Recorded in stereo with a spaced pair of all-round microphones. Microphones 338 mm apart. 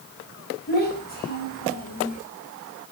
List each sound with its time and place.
0.7 s a child speaking: 30° left (ahead or behind), 6 m; by 2.2 s 25° left (ahead or behind), 4 m